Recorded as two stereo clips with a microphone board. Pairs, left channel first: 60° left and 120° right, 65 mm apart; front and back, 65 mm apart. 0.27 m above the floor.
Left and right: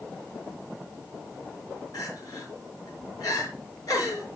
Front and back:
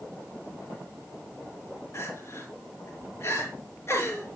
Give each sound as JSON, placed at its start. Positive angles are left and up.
{"t": 1.9, "sound": "crying", "azimuth_deg": 40, "distance_m": 4.5}